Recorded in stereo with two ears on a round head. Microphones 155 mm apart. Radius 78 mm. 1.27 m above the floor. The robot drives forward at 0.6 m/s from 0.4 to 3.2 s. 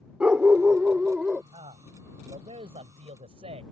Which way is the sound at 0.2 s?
5° right (ahead or behind).